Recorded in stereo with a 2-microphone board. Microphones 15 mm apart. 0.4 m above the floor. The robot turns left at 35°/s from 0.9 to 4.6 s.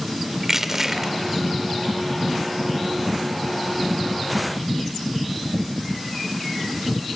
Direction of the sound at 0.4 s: 25° right (ahead or behind).